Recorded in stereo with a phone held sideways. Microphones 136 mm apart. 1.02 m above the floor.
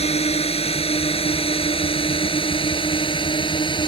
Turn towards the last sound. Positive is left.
turn(degrees=35)  # may be behind; listen again after turning